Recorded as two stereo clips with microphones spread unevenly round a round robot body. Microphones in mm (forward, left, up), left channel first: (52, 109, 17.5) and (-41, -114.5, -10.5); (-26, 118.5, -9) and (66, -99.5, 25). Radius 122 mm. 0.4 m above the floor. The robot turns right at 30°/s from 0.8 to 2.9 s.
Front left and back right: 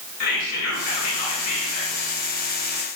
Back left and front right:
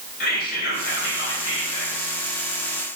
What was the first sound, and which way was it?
Whispering, 70° left.